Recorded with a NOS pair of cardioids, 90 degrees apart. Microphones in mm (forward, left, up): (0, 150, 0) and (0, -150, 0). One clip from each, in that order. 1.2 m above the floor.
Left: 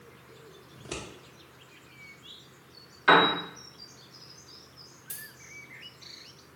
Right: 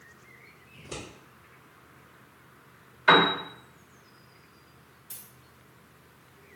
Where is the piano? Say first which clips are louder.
Even; 5° left, 1.4 m.